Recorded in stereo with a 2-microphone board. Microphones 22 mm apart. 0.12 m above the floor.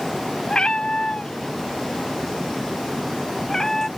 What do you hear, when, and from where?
0.5 s a cat meowing: 40° left (ahead or behind); by 3.9 s 15° left (ahead or behind)